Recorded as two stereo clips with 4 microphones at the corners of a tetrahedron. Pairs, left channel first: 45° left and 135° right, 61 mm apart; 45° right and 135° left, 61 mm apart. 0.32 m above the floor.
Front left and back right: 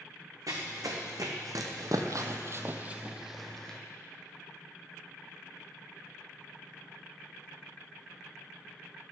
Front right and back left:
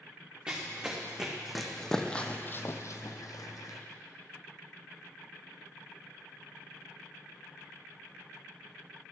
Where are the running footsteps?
150° right, 1.7 m; by 3.8 s 35° right, 1.0 m.